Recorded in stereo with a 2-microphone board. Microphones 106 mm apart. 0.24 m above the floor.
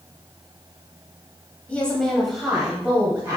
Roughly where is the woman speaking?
Centre.